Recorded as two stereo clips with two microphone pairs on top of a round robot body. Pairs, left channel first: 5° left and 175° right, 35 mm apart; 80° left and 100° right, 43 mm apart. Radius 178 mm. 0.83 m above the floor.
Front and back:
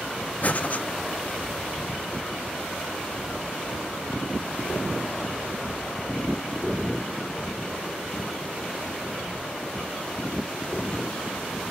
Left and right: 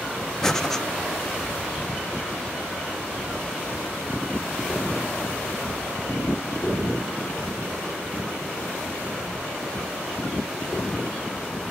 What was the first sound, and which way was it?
Breathing, straight ahead.